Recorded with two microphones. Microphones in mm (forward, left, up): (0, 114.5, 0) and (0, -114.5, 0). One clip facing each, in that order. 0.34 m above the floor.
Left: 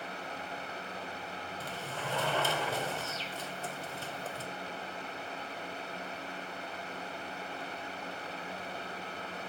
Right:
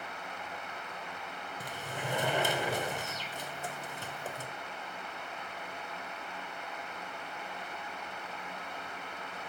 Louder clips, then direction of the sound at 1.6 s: Right 1 dB; 15° right (ahead or behind).